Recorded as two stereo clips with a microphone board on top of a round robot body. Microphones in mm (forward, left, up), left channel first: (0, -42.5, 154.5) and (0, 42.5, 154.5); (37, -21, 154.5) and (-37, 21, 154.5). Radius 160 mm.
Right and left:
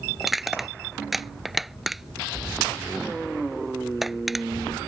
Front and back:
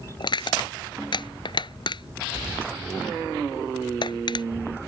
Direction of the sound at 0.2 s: Straight ahead.